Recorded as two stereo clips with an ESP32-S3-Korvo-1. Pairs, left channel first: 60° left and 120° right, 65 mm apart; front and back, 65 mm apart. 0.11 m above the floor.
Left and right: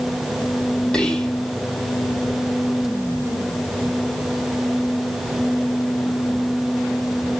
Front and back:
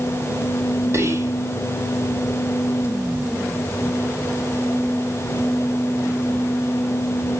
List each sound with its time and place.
0.9 s whispering: 135° left, 4.5 m